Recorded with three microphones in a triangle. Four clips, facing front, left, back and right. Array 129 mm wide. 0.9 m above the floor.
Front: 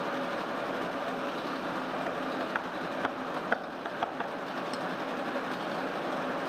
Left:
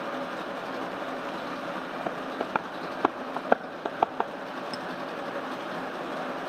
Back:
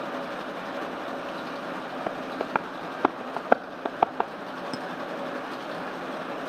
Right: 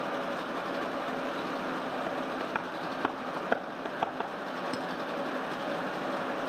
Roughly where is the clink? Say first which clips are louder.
Right 1 dB, back 2 dB; behind.